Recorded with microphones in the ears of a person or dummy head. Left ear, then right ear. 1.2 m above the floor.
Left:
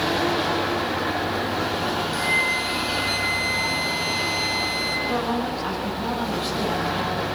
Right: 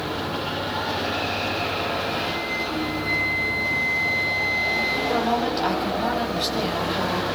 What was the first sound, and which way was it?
A flute, 55° left (ahead or behind).